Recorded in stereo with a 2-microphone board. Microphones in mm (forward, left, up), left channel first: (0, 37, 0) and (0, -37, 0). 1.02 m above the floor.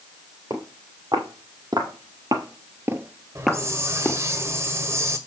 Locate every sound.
0.5 s footsteps: 65° right (ahead or behind), 3.5 m; by 4.2 s 25° left (ahead or behind), 1.7 m
3.4 s a hiss: 35° right (ahead or behind), 1.5 m